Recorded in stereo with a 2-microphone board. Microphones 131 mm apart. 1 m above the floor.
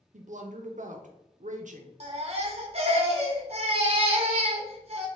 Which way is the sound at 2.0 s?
50° right (ahead or behind).